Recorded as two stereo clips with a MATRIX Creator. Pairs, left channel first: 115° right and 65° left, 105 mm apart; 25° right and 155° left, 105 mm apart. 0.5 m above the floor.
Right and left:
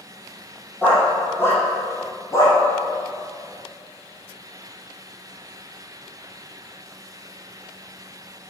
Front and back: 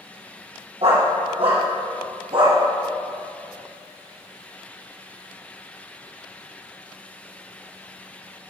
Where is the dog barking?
175° left, 5.5 m; by 2.6 s 170° right, 4.5 m.